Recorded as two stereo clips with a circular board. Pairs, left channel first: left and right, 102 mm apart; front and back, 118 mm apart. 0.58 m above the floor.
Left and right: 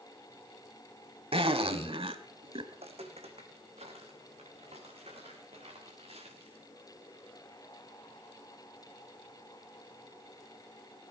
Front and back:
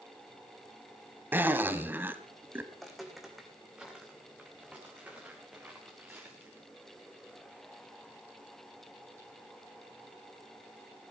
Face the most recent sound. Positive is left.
turn(degrees=-110)